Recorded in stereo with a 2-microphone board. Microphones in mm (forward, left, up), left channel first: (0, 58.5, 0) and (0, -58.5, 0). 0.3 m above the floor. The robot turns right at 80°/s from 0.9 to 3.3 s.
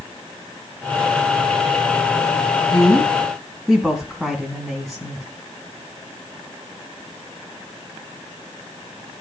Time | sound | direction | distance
2.7 | a woman speaking | 130° left | 2.5 m